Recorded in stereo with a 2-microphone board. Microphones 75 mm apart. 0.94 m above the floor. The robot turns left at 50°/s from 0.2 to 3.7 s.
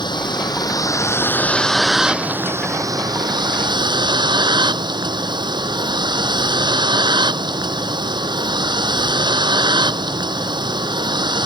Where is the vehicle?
85° left; by 11.5 s 90° right.